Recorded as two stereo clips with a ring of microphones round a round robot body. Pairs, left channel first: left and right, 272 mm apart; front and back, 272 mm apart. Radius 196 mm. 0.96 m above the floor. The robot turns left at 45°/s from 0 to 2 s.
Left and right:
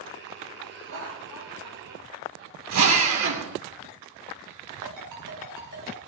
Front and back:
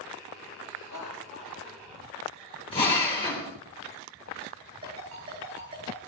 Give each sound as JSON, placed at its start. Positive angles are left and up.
{"t": 0.7, "sound": "laughter", "azimuth_deg": -45, "distance_m": 5.5}
{"t": 2.7, "sound": "a drill", "azimuth_deg": -75, "distance_m": 3.0}
{"t": 4.8, "sound": "a ringtone", "azimuth_deg": -125, "distance_m": 7.5}